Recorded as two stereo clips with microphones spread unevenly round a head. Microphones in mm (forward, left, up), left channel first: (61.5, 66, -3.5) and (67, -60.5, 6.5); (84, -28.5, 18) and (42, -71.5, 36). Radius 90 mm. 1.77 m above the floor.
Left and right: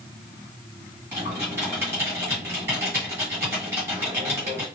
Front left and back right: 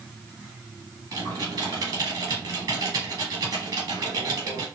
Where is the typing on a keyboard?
160° right, 1.5 m.